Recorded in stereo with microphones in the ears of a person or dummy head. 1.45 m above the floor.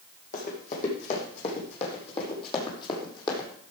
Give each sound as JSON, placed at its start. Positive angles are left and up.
{"t": 0.3, "sound": "running footsteps", "side_deg": 45, "distance_m": 4.5}